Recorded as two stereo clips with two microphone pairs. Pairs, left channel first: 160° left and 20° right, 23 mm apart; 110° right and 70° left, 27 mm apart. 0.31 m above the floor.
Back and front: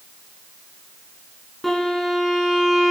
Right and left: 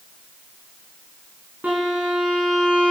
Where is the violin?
75° left, 3.5 m.